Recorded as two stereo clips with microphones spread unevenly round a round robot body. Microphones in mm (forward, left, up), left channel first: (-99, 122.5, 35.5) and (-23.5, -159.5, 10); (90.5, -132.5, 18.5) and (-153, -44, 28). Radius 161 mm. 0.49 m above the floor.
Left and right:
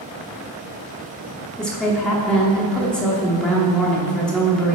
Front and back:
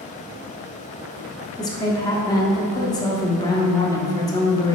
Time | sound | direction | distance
1.6 | a woman speaking | 10° left | 0.7 m